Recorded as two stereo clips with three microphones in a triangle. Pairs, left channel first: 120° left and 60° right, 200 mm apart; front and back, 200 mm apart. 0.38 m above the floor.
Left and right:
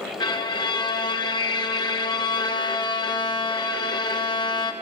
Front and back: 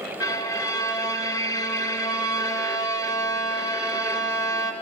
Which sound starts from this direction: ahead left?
A violin, at 0.2 s.